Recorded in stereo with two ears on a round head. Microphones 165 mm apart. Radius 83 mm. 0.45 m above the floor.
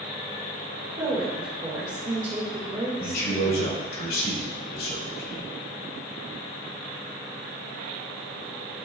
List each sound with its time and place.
1.0 s a woman speaking: 25° right (ahead or behind), 1.4 m
3.0 s a man speaking: 55° left (ahead or behind), 2.5 m